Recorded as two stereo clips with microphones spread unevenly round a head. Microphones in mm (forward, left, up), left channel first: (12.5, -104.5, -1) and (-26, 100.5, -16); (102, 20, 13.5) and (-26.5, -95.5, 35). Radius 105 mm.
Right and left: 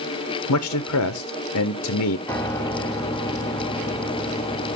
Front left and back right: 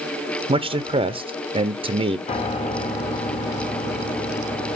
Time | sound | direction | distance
0.5 | a man speaking | 80° right | 0.6 m
2.3 | a piano | 10° right | 1.0 m